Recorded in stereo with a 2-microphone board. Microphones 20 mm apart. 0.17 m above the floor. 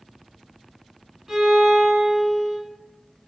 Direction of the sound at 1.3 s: 20° right (ahead or behind).